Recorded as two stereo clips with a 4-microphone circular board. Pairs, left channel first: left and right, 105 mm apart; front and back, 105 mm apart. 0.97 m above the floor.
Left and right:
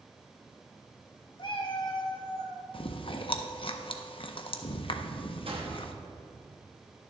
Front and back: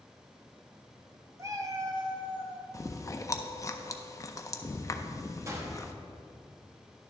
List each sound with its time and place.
1.4 s a cat meowing: 120° left, 0.8 m; by 2.6 s 135° left, 1.4 m
2.7 s chewing: 60° left, 0.5 m
5.5 s a gunshot: 120° right, 1.1 m